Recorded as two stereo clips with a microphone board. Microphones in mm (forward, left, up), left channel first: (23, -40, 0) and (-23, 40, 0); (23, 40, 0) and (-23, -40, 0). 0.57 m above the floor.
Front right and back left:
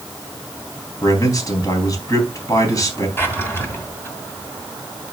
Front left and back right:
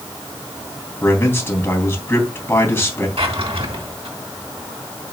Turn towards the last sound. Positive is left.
turn(degrees=-125)